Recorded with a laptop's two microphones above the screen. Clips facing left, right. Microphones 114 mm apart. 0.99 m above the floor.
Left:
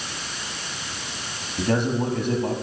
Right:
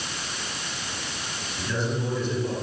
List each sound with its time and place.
1.6 s a man speaking: 60° left (ahead or behind), 7 m